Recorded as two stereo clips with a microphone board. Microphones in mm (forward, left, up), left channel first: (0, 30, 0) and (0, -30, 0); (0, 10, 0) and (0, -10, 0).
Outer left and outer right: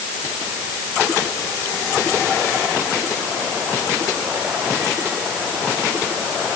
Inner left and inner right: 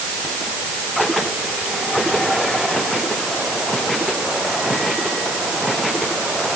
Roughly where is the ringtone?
No ringtone in this recording.